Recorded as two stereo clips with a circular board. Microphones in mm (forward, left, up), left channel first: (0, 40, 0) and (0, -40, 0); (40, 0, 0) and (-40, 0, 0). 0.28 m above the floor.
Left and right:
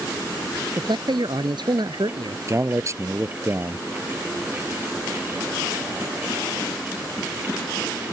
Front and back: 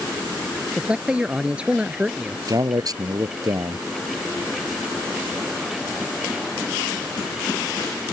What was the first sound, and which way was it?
A man speaking, 105° right.